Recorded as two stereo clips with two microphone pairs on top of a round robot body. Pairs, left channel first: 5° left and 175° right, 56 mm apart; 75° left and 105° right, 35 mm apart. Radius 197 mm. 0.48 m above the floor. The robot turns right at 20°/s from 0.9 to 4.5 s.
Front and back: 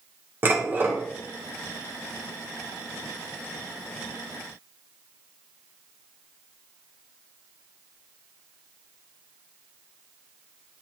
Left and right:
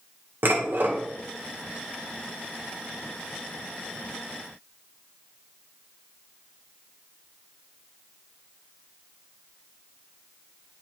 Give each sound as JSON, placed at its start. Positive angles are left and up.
{"t": 0.4, "sound": "dishes clattering", "azimuth_deg": -125, "distance_m": 2.0}